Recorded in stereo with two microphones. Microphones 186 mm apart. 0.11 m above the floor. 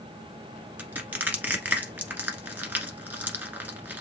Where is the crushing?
10° right (ahead or behind), 1.4 m.